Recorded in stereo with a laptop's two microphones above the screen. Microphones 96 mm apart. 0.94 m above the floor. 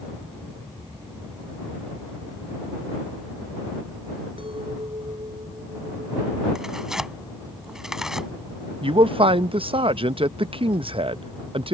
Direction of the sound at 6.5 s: 5° right (ahead or behind).